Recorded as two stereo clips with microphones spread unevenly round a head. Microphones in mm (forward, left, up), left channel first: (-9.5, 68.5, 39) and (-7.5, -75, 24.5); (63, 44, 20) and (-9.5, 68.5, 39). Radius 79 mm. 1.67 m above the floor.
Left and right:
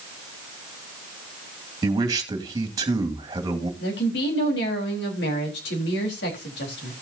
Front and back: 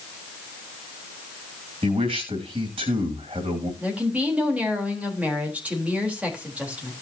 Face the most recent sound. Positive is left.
turn(degrees=90)